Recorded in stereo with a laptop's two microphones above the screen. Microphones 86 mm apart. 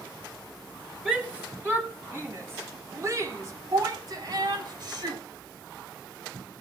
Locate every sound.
1.1 s a shout: 15° right (ahead or behind), 3.5 m; by 5.2 s 60° right (ahead or behind), 3.5 m